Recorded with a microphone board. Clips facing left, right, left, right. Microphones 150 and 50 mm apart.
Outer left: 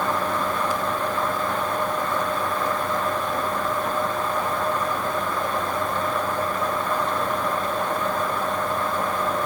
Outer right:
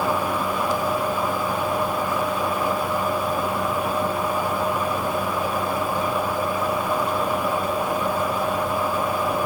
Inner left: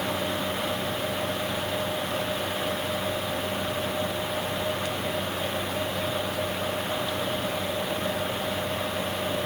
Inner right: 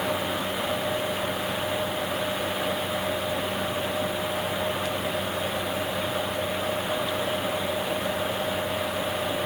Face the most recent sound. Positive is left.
No sound to turn to.